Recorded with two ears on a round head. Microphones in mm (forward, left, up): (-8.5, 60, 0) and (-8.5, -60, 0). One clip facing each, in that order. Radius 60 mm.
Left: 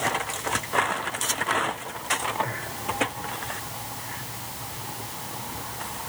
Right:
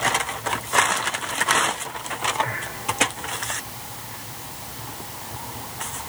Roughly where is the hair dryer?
No hair dryer in this recording.